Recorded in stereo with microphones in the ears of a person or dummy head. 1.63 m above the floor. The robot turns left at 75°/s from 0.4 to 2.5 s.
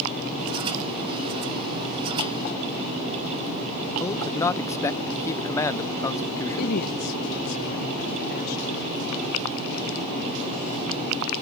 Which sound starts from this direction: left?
A woman speaking, at 6.6 s.